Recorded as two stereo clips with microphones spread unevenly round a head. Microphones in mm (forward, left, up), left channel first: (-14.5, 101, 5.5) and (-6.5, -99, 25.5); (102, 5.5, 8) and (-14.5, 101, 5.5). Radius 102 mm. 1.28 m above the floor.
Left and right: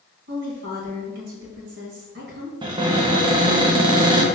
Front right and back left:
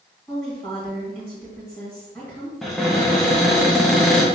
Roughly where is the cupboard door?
Behind right.